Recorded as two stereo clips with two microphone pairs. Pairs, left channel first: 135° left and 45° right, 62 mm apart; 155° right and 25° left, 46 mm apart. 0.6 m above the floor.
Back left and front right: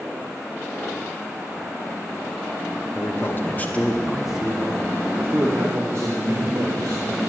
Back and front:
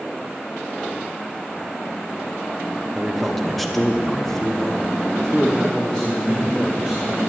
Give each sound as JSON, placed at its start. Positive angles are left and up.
{"t": 3.0, "sound": "a man speaking", "azimuth_deg": 110, "distance_m": 1.3}